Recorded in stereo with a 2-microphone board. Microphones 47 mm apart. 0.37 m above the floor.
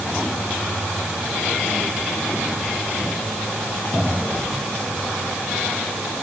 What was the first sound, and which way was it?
Only background noise.